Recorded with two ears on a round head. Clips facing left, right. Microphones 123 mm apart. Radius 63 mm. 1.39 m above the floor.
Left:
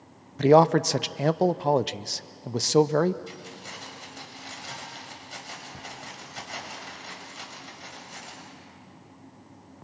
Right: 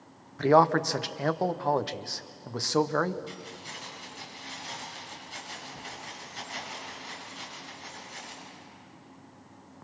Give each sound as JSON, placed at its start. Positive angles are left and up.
{"t": 0.4, "sound": "a man speaking", "side_deg": 25, "distance_m": 0.5}
{"t": 3.3, "sound": "keys jangling", "side_deg": 60, "distance_m": 5.5}